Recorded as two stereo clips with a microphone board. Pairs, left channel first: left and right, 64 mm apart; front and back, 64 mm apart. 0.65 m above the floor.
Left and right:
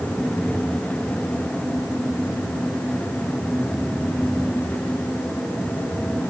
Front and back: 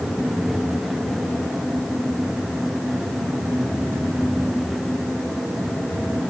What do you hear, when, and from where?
Only background noise.